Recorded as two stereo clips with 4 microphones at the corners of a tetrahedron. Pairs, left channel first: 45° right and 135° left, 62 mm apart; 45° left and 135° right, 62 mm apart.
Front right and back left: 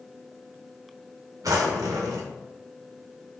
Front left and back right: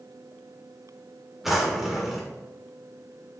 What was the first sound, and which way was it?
A drawer, 140° left.